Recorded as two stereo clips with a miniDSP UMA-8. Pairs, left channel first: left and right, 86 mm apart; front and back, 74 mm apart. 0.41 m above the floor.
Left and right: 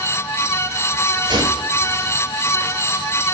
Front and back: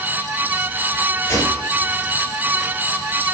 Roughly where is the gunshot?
Ahead right.